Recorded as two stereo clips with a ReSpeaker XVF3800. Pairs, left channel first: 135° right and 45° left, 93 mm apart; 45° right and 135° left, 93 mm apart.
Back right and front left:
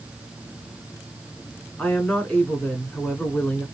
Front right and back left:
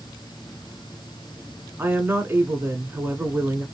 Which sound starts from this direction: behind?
A woman speaking, at 1.8 s.